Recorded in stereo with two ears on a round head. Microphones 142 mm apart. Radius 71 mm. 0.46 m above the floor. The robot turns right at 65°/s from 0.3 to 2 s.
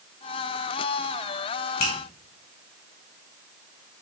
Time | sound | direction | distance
1.8 | a finger snap | 65° left (ahead or behind) | 2.5 m